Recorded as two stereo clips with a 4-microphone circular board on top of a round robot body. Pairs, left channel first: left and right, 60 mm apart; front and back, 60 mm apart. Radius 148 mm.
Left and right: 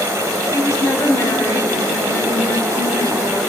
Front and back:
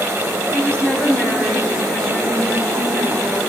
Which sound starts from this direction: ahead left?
A woman speaking, at 0.5 s.